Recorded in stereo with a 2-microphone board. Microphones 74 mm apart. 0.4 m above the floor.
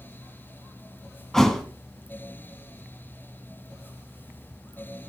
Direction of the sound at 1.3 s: 5° left (ahead or behind).